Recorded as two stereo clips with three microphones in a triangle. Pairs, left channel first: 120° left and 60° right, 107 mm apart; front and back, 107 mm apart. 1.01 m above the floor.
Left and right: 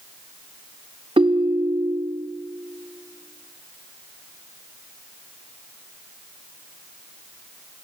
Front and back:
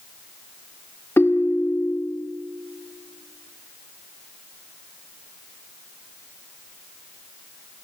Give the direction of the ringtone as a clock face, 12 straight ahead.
2 o'clock.